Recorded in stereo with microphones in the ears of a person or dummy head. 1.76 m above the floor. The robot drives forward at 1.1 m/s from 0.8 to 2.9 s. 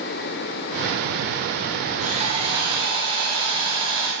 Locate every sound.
2.0 s sawing: 45° right (ahead or behind), 1.8 m; by 4.1 s 30° right (ahead or behind), 2.5 m